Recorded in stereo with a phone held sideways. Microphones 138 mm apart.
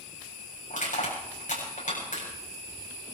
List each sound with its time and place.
0.7 s crushing: 70° left (ahead or behind), 7.5 m